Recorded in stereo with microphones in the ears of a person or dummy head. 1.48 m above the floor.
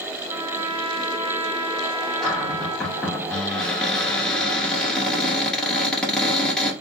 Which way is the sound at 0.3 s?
30° right (ahead or behind).